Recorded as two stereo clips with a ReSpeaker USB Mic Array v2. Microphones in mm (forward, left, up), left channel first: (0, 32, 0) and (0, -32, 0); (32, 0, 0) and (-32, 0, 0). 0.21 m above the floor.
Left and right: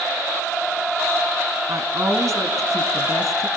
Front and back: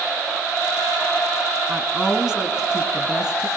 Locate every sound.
1.7 s a woman speaking: 110° right, 2 m